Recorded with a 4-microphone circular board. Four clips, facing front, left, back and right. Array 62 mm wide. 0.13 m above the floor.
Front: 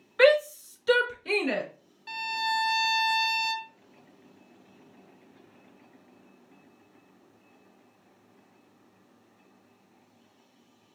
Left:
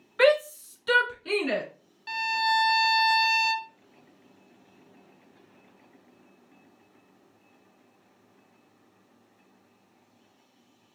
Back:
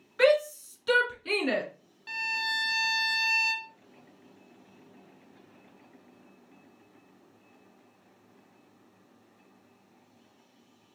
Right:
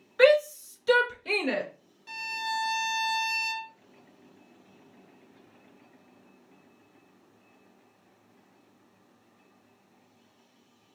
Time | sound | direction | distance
0.2 | a shout | 55° left | 1.5 m
2.1 | a violin | 95° left | 0.6 m